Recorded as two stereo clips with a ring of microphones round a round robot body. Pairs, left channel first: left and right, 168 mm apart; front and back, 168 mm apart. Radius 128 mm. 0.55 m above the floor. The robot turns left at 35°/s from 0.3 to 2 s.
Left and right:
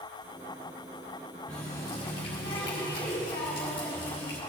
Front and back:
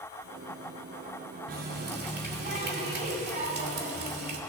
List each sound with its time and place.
1.5 s a running tap: 175° left, 2 m; by 4.4 s 160° left, 2 m